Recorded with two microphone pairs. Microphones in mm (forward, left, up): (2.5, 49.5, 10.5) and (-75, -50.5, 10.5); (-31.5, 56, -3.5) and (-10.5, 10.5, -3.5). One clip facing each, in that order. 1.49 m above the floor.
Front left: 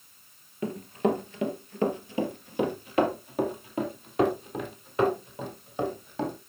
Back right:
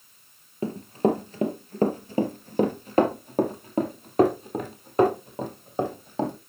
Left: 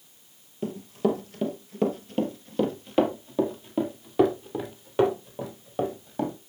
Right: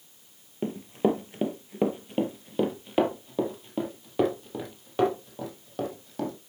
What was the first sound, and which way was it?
Running footsteps, 100° right.